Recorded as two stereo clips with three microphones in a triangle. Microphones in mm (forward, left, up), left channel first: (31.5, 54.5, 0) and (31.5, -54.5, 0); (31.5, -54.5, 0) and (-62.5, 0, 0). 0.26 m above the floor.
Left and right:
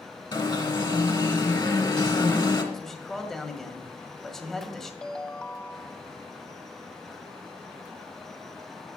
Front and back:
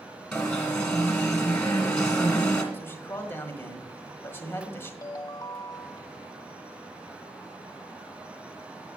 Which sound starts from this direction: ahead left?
An alarm, at 0.3 s.